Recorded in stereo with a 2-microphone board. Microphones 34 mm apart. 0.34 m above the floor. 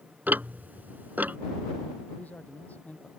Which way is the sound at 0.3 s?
65° right (ahead or behind).